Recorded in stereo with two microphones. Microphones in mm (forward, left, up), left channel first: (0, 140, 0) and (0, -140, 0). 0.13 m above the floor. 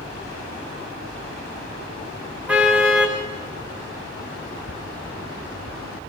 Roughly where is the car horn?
Centre.